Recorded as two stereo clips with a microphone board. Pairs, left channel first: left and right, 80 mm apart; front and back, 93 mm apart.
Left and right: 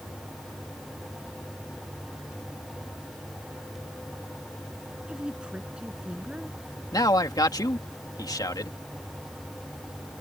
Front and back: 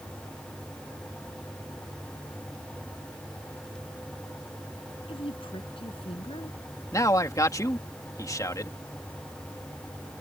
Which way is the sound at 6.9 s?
55° left.